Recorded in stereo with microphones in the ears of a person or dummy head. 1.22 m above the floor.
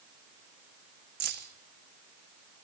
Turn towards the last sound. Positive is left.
turn(degrees=-50)  # may be behind; listen again after turning